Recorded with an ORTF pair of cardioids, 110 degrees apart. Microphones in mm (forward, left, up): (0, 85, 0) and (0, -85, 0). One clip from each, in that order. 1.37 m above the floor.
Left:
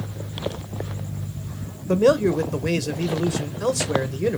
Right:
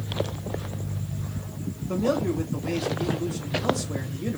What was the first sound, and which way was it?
A man speaking, 65° left.